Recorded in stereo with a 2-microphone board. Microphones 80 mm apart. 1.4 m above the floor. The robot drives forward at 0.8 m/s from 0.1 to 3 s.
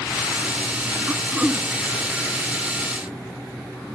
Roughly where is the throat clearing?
Centre.